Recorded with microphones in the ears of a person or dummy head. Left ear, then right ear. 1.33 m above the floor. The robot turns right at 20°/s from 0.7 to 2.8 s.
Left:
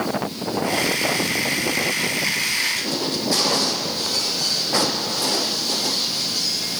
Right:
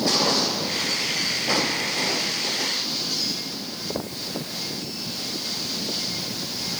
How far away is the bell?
No bell in this recording.